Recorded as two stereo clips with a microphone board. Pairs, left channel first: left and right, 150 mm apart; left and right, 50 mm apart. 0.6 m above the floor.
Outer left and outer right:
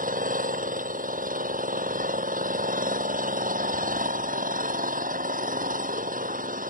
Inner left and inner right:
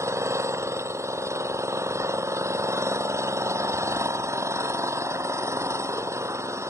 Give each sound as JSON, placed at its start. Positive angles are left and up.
{"t": 0.0, "sound": "an engine running", "side_deg": -65}